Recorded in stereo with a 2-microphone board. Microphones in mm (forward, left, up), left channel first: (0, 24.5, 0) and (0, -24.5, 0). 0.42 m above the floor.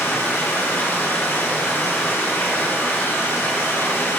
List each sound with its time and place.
0.0 s running water: 50° left (ahead or behind), 5.5 m